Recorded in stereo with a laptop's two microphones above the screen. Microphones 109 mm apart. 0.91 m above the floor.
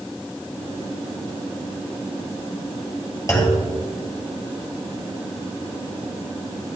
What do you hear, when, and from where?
3.3 s a clunk: 25° left (ahead or behind), 3 m